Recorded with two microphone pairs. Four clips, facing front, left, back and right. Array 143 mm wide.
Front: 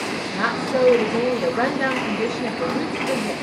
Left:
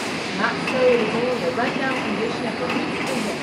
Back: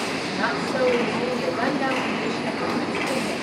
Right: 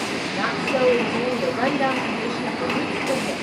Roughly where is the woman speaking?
Ahead left.